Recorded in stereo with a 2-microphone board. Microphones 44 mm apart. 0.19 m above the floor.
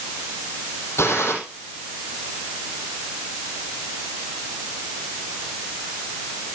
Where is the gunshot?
80° left, 5.5 m.